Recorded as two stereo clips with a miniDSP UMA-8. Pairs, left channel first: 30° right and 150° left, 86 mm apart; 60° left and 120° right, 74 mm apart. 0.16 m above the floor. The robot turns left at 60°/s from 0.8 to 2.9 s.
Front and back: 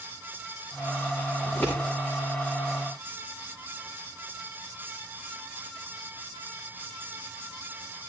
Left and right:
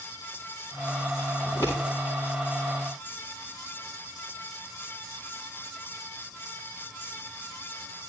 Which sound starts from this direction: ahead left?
Scissors, at 1.4 s.